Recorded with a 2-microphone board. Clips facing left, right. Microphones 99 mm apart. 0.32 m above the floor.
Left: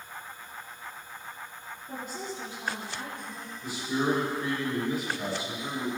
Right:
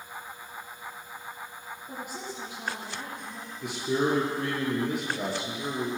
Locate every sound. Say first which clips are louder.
1.9 s a woman speaking: left 2 dB; 10° right (ahead or behind), 6 m
3.6 s a man speaking: right 2 dB; 80° right, 7 m